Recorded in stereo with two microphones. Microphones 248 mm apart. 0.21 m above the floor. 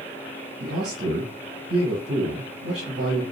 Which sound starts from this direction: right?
A man speaking, at 0.6 s.